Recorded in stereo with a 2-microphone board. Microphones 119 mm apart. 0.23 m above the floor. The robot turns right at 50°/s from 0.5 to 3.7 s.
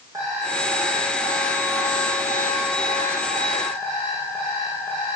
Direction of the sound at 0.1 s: 30° right.